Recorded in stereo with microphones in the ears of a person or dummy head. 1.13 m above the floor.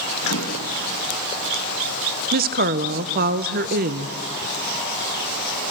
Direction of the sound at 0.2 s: 85° left.